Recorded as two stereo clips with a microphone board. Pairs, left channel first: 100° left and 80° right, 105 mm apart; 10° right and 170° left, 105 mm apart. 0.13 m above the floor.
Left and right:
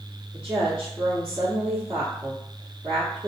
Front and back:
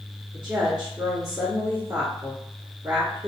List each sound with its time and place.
0.3 s a woman speaking: 170° left, 1.4 m